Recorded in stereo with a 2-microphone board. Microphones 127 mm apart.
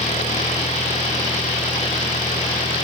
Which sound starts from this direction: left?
An engine running, at 0.0 s.